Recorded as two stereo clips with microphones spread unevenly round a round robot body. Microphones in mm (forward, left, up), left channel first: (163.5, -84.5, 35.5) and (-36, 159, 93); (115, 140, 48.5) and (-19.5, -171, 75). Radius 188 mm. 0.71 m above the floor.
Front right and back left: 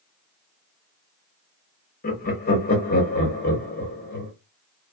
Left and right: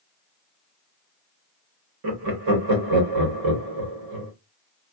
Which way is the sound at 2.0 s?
100° right.